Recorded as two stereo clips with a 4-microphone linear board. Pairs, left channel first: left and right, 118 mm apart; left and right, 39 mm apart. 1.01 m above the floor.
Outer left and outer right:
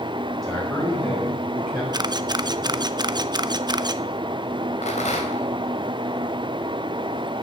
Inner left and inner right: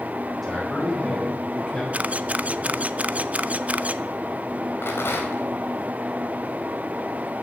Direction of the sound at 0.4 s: 25° left (ahead or behind).